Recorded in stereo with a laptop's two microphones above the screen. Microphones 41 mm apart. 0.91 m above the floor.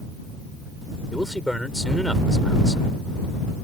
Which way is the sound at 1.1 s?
5° left (ahead or behind).